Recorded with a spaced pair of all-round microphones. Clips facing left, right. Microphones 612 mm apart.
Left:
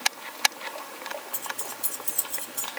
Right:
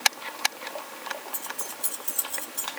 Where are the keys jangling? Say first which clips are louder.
Left 1 dB; 30° left (ahead or behind), 3 m; by 2.7 s 45° left (ahead or behind), 3 m.